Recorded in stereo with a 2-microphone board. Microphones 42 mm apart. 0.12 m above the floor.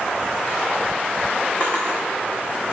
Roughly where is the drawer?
Left.